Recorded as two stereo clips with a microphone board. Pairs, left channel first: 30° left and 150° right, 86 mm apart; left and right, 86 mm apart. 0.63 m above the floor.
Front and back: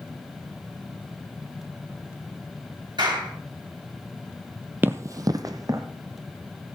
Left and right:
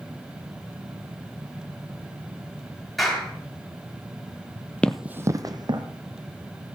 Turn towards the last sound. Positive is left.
turn(degrees=-105)